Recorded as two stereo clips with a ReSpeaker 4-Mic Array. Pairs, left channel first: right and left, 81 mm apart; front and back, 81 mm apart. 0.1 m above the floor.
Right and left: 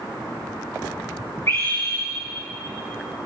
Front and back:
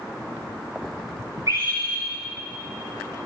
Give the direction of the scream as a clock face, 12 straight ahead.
5 o'clock.